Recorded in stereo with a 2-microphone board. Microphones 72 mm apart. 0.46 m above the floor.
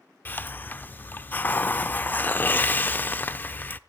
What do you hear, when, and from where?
0.2 s a hiss: 25° left (ahead or behind), 0.5 m